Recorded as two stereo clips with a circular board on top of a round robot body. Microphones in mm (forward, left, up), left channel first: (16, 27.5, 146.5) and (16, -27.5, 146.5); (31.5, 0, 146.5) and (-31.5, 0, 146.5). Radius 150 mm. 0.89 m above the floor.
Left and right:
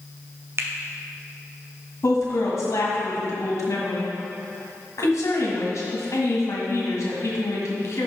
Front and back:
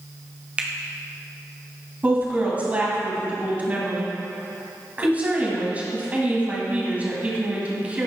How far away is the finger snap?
About 1.1 m.